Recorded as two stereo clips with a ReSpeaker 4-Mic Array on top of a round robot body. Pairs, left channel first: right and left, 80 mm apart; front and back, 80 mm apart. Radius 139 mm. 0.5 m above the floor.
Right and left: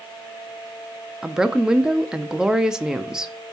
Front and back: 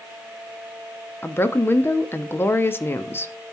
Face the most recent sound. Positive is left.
turn(degrees=15)